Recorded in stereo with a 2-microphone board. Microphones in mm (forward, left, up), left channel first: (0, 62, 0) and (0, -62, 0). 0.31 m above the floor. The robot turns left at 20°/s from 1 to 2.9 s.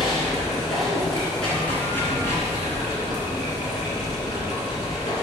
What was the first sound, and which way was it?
Running water, straight behind.